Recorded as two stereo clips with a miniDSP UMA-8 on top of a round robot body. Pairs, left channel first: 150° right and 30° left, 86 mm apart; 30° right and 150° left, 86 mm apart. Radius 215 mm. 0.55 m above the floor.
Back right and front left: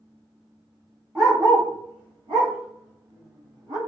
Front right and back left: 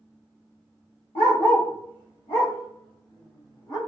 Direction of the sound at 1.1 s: 35° right.